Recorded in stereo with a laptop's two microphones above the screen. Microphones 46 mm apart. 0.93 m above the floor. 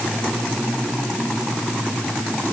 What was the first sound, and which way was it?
Only background noise.